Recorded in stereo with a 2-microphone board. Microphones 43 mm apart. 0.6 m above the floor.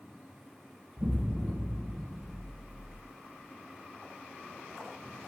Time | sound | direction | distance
1.0 | an explosion | 75° right (ahead or behind) | 2.0 m